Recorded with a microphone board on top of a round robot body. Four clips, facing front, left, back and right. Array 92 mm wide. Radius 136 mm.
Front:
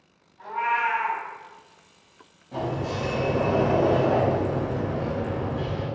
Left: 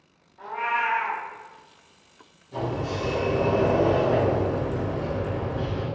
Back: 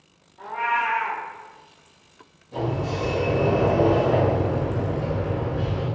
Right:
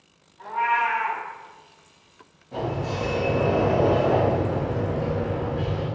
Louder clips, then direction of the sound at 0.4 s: Right 3 dB, back 1 dB; 145° left.